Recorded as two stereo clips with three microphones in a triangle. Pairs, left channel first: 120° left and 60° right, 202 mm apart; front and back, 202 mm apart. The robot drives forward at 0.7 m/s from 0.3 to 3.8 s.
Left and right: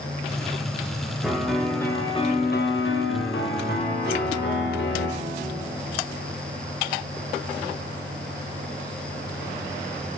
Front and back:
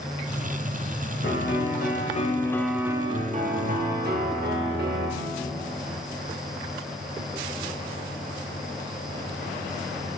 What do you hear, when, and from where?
1.2 s a piano: 25° left, 1.1 m; by 5.1 s 145° left, 0.9 m